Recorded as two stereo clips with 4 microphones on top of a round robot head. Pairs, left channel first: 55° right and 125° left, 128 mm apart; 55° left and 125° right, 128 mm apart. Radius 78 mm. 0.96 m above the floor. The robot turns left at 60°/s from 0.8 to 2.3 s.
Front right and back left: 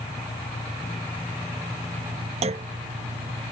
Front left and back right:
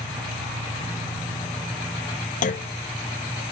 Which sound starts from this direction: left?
A clunk, at 2.4 s.